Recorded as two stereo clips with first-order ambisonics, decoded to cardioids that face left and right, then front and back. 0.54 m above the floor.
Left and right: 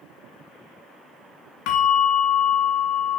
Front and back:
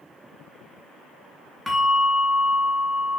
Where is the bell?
85° left, 3 m.